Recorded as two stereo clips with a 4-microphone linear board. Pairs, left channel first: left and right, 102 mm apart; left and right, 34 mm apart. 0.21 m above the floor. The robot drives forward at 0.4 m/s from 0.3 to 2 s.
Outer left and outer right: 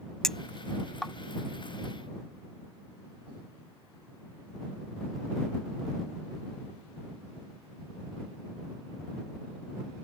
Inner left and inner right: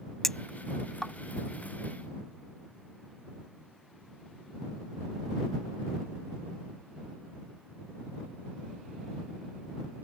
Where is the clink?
5° left (ahead or behind).